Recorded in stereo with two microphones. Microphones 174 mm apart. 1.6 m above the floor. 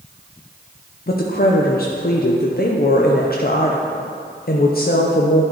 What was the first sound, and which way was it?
A woman speaking, 55° left (ahead or behind).